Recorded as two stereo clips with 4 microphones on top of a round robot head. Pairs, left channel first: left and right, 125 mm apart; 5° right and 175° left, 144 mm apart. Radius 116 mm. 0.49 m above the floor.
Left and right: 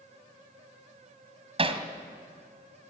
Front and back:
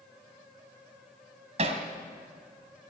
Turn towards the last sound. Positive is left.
turn(degrees=-130)